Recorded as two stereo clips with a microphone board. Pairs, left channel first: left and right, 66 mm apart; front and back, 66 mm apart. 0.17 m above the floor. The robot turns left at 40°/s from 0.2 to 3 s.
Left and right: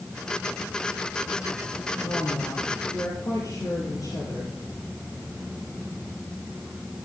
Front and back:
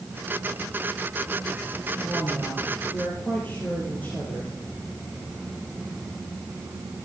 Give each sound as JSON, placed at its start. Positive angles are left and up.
{"t": 2.0, "sound": "a woman speaking", "azimuth_deg": 100, "distance_m": 3.5}